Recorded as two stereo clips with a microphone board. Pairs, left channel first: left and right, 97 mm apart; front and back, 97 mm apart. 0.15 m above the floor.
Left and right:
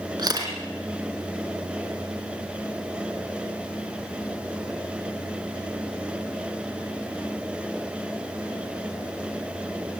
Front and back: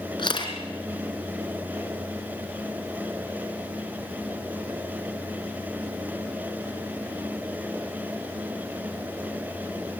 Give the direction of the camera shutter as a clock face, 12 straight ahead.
1 o'clock.